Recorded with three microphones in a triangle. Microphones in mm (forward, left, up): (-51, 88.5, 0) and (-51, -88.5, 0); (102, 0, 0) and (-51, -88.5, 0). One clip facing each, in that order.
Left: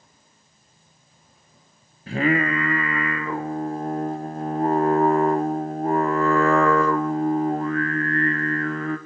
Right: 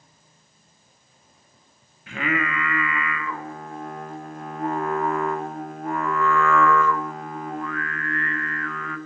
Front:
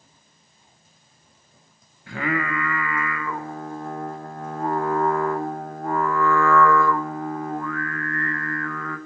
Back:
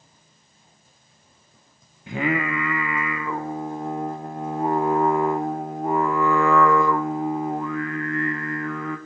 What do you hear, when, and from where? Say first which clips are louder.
2.1 s singing: left 6 dB, back 2 dB; 140° left, 0.9 m